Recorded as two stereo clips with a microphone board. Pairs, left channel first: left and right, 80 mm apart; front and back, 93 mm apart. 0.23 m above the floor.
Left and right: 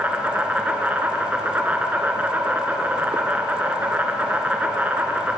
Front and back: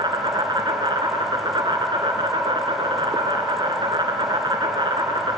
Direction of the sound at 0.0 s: 155° right.